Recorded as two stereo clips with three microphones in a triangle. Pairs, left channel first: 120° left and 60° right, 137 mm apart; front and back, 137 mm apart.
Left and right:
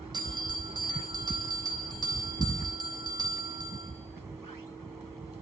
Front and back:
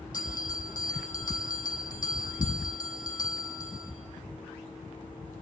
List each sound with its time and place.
0.1 s a bell: straight ahead, 3.5 m